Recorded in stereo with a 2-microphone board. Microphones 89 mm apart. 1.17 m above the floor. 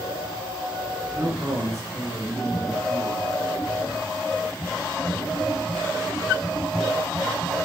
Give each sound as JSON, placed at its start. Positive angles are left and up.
{"t": 1.1, "sound": "a man speaking", "side_deg": -40, "distance_m": 7.5}